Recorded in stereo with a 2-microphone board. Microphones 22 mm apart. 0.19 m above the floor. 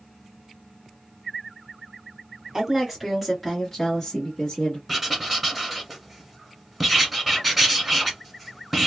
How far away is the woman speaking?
About 1.2 m.